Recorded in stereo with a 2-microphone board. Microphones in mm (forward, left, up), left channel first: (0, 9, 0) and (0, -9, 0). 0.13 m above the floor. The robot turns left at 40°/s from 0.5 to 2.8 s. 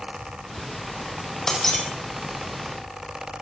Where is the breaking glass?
25° left (ahead or behind), 3 m; by 1.9 s 10° left (ahead or behind), 3 m.